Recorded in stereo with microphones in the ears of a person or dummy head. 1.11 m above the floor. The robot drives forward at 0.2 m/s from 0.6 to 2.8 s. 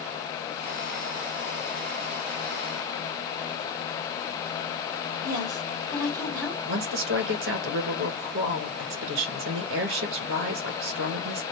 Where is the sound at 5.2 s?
5° left (ahead or behind), 3 m.